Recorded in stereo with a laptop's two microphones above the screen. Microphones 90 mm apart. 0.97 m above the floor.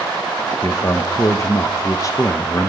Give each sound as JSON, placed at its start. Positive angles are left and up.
{"t": 0.6, "sound": "a man speaking", "side_deg": 35, "distance_m": 0.9}